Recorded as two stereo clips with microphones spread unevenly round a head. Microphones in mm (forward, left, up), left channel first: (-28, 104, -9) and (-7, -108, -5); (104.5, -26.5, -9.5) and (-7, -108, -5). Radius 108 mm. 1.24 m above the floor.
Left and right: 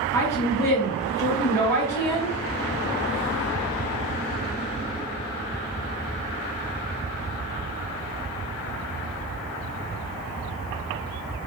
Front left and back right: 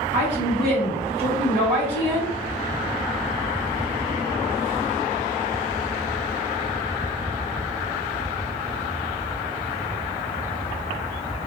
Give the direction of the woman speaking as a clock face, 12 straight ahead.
6 o'clock.